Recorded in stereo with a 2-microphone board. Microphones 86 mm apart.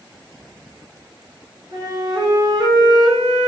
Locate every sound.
1.7 s a flute: 50° right (ahead or behind), 4 m